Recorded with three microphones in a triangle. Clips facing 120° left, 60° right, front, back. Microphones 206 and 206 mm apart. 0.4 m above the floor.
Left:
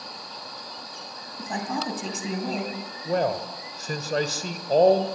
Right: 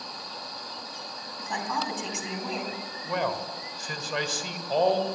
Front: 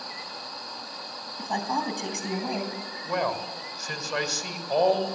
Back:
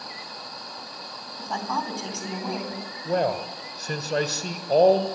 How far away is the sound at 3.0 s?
About 1.5 m.